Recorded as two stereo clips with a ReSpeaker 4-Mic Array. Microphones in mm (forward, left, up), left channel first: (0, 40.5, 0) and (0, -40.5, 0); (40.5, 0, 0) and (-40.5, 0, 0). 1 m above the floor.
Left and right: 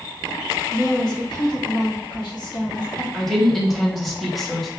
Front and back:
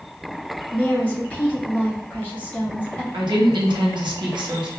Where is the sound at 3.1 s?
Straight behind, 1.0 m.